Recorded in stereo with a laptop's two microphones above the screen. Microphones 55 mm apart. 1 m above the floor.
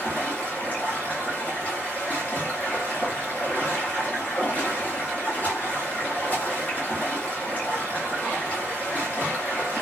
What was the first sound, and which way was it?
Running water, 30° left (ahead or behind).